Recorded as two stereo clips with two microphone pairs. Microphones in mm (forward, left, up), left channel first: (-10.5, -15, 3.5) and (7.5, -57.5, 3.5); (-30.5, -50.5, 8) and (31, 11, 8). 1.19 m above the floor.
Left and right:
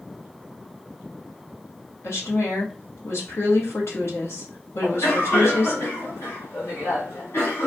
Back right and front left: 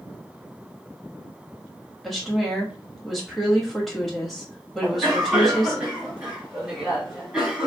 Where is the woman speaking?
135° left, 1.3 m.